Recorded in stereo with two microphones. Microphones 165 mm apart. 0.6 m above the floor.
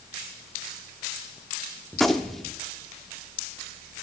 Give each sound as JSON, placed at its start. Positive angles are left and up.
{"t": 1.9, "sound": "a gunshot", "side_deg": 0, "distance_m": 0.6}